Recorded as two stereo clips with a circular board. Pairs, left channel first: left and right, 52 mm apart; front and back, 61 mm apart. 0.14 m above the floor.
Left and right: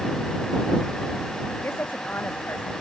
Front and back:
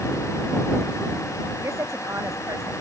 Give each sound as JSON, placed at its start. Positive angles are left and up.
{"t": 1.6, "sound": "a woman speaking", "azimuth_deg": 140}